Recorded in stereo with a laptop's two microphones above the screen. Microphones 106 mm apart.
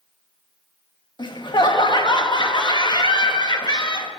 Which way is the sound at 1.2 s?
45° left (ahead or behind).